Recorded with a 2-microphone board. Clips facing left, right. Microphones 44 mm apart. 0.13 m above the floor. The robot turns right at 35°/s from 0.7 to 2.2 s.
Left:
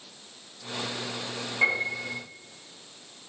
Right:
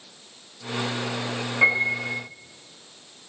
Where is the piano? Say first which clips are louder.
Right 5 dB; 20° right (ahead or behind), 3 m; by 2.2 s 40° right (ahead or behind), 3 m.